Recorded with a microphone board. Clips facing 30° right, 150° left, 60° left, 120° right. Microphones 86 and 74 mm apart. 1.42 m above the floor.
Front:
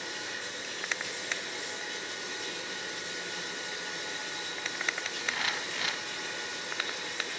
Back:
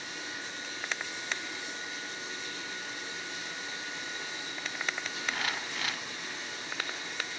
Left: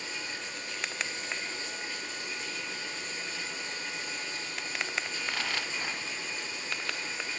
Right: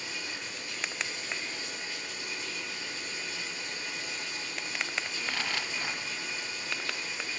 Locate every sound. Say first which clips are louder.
0.0 s running water: front 2 dB, left 1 dB; straight ahead, 8.5 m